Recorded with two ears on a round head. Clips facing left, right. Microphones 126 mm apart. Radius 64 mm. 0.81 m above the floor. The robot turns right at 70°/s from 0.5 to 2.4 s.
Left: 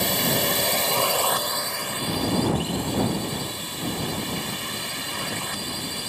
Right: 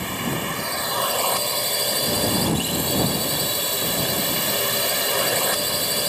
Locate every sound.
0.0 s a drone: 130° left; by 6.1 s 95° right